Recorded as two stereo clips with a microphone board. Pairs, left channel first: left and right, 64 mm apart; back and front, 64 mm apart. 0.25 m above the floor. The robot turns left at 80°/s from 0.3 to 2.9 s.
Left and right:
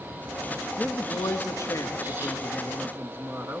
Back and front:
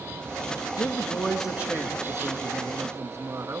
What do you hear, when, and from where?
0.8 s a man speaking: 135° left, 3.5 m; by 3.6 s 35° right, 3.5 m